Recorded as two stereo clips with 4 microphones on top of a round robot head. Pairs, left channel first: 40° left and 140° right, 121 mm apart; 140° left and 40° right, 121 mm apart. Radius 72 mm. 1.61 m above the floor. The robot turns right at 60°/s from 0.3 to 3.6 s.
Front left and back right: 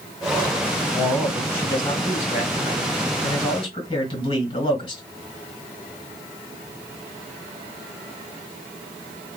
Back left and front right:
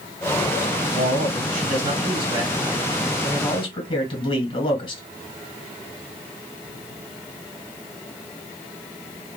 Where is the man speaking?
70° right, 2 m; by 5.0 s 90° left, 2 m.